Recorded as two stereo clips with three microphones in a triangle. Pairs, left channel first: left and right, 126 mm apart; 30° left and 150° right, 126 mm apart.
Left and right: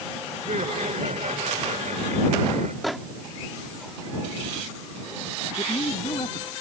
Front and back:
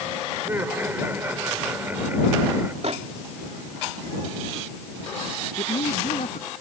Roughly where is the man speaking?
Ahead left.